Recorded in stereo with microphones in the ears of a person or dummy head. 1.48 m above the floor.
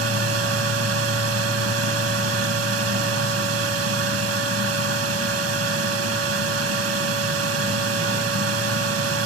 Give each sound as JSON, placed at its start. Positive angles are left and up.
{"t": 0.0, "sound": "a fan", "side_deg": -75, "distance_m": 1.9}